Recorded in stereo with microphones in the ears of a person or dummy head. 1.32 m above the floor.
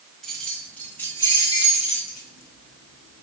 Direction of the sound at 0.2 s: Centre (ahead or behind).